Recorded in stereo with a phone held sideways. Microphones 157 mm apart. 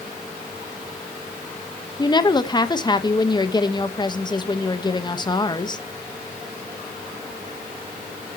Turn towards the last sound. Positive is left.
turn(degrees=25)  # may be behind; listen again after turning